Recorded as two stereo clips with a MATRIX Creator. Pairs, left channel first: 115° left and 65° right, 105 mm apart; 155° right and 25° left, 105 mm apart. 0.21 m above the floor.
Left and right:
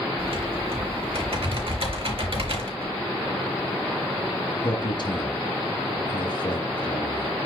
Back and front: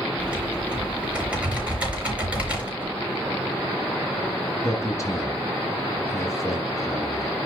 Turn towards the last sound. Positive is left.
turn(degrees=145)